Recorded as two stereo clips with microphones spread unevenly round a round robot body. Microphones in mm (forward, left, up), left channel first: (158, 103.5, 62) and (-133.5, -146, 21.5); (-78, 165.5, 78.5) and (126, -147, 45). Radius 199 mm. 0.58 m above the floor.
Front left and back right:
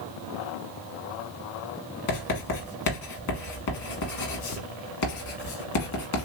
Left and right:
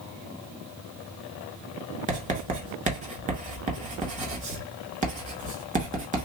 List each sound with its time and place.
2.1 s writing: 5° left, 1.6 m